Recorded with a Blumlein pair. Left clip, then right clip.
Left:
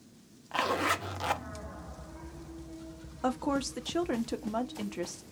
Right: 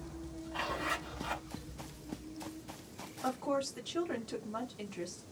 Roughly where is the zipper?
Ahead left.